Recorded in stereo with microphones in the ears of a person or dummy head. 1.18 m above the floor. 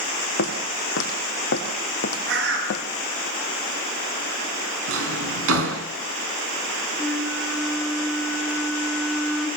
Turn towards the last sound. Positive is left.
turn(degrees=5)  # may be behind; listen again after turning